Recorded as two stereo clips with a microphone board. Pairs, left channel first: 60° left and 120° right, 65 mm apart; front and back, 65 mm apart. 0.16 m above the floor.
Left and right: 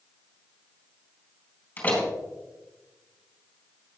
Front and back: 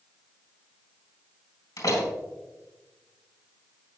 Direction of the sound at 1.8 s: 10° right.